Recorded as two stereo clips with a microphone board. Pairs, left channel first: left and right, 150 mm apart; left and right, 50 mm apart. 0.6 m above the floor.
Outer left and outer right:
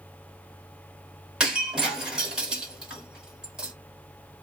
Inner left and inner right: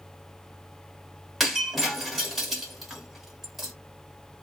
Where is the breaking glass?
5° right (ahead or behind), 1.1 m.